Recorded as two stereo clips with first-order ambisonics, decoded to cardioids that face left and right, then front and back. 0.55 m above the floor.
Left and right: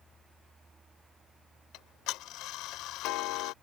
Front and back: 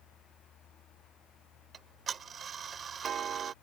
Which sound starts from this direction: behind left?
Ticking, at 1.7 s.